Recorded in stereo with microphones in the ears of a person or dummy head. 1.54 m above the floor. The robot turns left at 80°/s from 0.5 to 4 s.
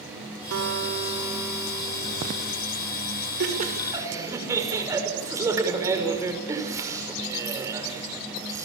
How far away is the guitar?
About 2.5 m.